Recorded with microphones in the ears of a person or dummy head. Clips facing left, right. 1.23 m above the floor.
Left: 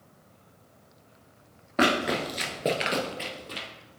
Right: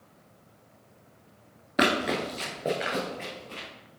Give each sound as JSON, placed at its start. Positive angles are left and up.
{"t": 1.8, "sound": "running footsteps", "side_deg": -15, "distance_m": 1.3}